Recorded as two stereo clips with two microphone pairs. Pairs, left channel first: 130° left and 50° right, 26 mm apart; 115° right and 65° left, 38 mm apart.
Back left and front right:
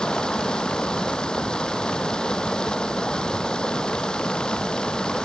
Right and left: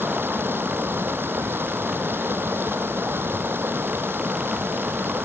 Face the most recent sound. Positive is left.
turn(degrees=75)